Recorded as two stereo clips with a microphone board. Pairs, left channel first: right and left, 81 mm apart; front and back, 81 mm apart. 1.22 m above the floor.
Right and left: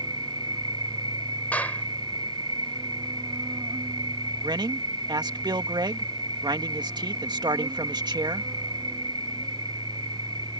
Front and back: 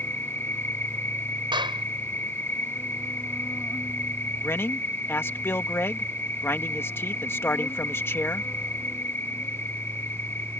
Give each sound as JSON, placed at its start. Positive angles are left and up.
{"t": 0.0, "sound": "an insect", "azimuth_deg": 65}
{"t": 1.5, "sound": "a clap", "azimuth_deg": -160}
{"t": 4.4, "sound": "a man speaking", "azimuth_deg": 60}